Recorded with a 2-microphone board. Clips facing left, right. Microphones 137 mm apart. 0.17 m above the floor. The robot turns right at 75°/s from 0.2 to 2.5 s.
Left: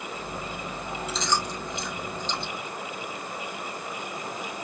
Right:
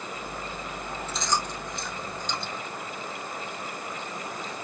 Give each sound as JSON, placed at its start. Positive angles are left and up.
{"t": 1.1, "sound": "chewing", "side_deg": -60, "distance_m": 2.5}